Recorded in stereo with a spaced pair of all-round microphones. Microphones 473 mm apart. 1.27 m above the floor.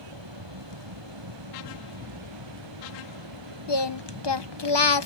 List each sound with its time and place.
0.0 s a fan: 70° right (ahead or behind)
3.7 s singing: 60° left (ahead or behind)